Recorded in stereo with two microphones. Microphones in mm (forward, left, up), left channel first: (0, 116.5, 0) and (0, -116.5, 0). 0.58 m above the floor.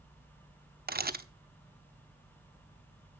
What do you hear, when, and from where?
0.9 s a camera shutter: 40° right (ahead or behind), 0.8 m